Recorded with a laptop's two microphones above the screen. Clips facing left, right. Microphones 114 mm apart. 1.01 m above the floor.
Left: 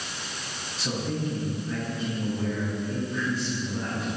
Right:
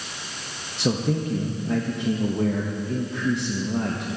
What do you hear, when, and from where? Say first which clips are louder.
0.8 s a man speaking: right 6 dB; 65° right (ahead or behind), 0.9 m